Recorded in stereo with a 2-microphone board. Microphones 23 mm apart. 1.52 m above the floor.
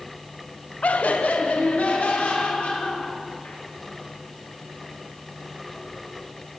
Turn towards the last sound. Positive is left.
turn(degrees=85)